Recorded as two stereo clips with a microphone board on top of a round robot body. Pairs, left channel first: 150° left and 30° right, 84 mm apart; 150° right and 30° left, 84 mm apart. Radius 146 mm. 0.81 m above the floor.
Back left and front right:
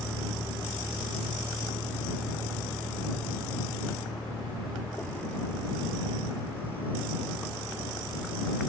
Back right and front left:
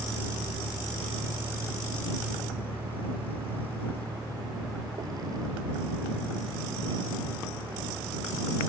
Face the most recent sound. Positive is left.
turn(degrees=80)